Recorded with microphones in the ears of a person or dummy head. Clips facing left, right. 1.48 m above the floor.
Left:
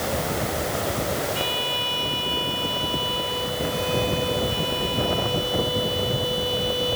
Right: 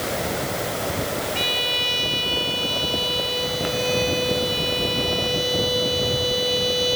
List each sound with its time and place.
1.4 s a violin: 30° right (ahead or behind)